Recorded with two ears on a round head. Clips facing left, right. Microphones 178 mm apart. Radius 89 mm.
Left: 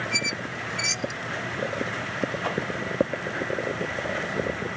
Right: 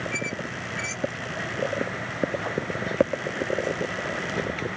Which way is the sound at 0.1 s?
55° left (ahead or behind).